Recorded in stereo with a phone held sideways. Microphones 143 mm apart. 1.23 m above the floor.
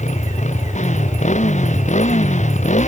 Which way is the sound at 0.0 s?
55° left (ahead or behind).